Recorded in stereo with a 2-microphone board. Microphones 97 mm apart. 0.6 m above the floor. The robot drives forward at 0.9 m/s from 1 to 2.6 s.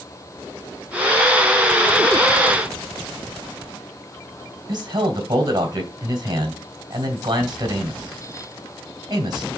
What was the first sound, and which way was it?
A man speaking, 45° right (ahead or behind).